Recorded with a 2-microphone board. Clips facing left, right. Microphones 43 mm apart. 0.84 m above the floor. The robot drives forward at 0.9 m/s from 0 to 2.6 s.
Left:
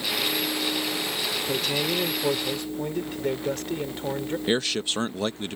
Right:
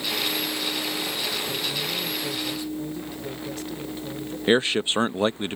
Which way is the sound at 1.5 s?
75° left (ahead or behind).